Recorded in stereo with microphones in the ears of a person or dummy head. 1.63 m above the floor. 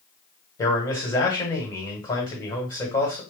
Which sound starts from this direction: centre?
A man speaking, at 0.6 s.